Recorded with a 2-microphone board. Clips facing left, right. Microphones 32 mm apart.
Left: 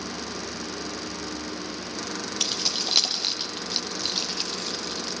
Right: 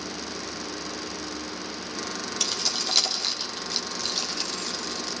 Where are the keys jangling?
15° left (ahead or behind), 4 m.